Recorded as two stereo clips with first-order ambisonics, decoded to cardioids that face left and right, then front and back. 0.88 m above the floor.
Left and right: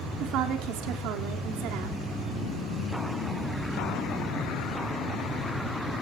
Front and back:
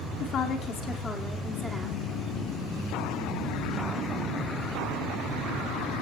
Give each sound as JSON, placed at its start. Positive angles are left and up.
{"t": 0.2, "sound": "a woman speaking", "azimuth_deg": -50, "distance_m": 2.5}